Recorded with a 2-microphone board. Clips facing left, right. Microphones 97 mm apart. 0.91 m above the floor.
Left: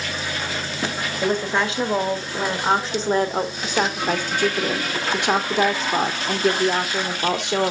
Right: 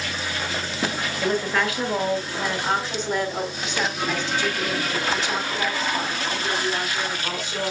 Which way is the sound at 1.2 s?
20° left (ahead or behind).